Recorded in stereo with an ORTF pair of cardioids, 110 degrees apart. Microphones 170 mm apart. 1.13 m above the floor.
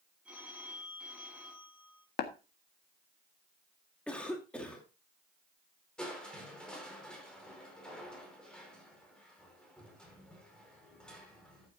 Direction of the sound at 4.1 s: 5° left.